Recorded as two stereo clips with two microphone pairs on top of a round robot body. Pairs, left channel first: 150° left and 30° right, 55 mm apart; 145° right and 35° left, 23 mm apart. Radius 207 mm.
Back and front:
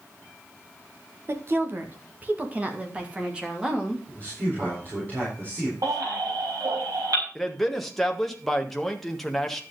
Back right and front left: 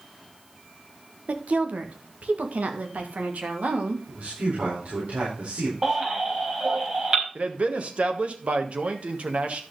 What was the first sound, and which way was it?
A woman speaking, 15° left.